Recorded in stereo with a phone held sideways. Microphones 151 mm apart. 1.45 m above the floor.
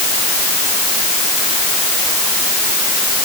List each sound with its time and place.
Only background noise.